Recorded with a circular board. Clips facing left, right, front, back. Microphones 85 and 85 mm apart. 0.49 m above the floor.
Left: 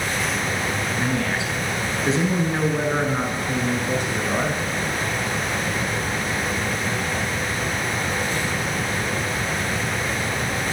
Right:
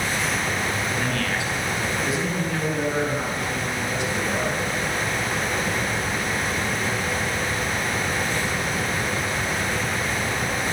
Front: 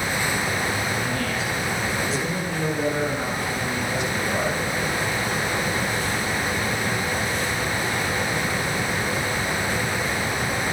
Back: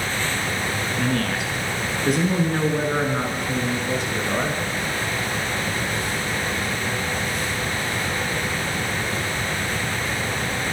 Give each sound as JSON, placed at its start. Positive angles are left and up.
{"t": 1.0, "sound": "a man speaking", "azimuth_deg": 160, "distance_m": 7.5}